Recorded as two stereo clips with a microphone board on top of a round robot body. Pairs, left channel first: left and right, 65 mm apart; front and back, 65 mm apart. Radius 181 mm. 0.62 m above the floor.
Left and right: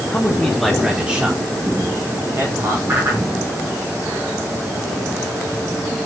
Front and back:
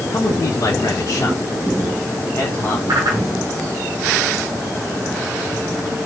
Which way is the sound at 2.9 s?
150° right.